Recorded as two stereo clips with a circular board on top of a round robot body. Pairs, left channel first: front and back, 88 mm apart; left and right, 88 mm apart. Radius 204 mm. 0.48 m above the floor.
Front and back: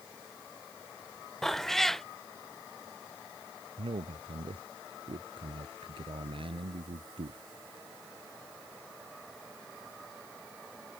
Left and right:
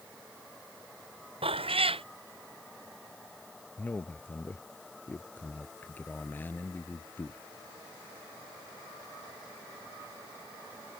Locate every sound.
1.4 s a cat meowing: 85° right
3.8 s a man speaking: 160° left